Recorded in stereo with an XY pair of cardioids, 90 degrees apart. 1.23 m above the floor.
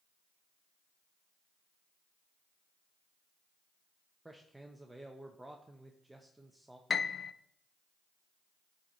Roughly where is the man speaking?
Ahead.